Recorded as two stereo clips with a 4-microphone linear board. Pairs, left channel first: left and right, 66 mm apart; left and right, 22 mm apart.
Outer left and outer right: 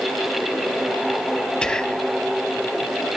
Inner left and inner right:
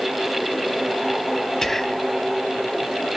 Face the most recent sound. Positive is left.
turn(degrees=15)  # may be behind; listen again after turning